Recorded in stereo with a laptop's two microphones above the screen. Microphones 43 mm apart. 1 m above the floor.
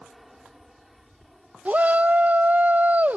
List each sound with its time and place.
0.0 s an aircraft: centre (ahead or behind)
1.6 s a shout: 40° right (ahead or behind)